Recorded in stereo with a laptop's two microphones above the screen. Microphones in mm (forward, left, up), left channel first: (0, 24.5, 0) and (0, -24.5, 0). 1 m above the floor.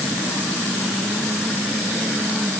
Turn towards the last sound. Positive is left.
No sound to turn to.